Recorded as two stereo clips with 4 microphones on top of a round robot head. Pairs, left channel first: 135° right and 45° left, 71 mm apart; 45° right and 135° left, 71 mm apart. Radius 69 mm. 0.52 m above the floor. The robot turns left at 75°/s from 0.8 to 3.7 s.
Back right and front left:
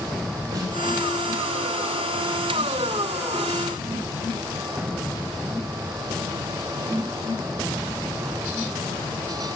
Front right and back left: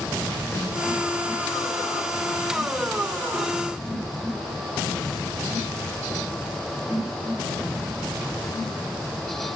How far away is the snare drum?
About 8 m.